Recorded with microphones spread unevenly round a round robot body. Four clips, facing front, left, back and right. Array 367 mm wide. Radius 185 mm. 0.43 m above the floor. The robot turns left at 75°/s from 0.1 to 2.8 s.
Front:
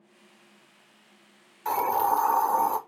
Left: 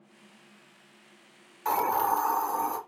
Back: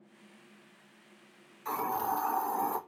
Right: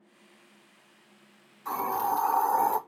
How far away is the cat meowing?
No cat meowing in this recording.